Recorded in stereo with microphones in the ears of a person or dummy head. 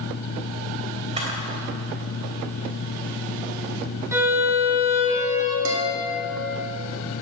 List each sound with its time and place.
1.2 s a camera shutter: 35° right (ahead or behind), 3 m
4.1 s a violin: 20° right (ahead or behind), 3 m
5.7 s a guitar: 75° right (ahead or behind), 2.5 m